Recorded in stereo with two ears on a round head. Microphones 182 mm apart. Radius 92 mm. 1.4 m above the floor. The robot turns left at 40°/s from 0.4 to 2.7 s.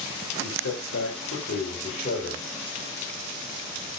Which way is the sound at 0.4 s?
105° left.